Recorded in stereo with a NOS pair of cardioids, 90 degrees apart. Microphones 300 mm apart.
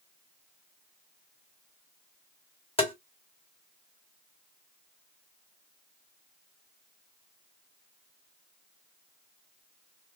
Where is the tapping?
20° left, 1.8 m.